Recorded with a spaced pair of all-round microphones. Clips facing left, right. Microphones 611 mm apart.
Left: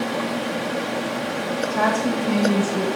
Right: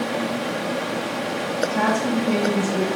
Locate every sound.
1.7 s a woman speaking: 15° right (ahead or behind), 1.4 m; by 2.9 s 25° left (ahead or behind), 1.7 m